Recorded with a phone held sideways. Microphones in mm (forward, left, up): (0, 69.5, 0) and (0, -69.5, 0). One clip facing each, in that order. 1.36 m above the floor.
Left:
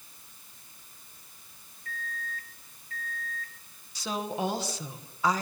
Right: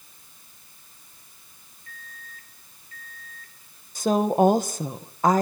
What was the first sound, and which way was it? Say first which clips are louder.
A microwave: left 8 dB; 75° left (ahead or behind).